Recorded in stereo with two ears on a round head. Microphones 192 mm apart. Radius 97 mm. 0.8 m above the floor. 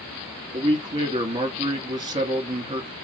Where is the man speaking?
20° right (ahead or behind), 1.4 m.